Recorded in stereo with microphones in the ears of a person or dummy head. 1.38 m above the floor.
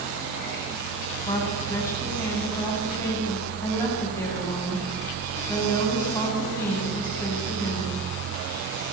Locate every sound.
1.2 s a woman speaking: 15° left (ahead or behind), 8.5 m